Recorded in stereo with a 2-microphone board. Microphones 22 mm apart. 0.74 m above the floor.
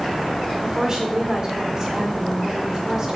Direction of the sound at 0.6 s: 30° right (ahead or behind).